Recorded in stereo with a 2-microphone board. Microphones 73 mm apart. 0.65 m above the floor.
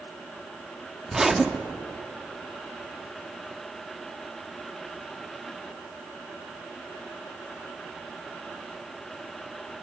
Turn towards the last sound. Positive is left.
turn(degrees=-5)  # may be behind; listen again after turning